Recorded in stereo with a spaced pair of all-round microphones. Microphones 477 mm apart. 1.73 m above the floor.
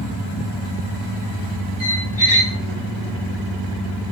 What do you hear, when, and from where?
1.8 s a squeak: 15° left (ahead or behind), 2.5 m